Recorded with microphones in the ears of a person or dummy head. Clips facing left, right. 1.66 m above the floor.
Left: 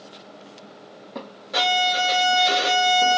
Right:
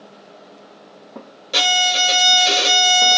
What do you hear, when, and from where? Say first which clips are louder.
1.5 s a violin: even; 40° right (ahead or behind), 0.9 m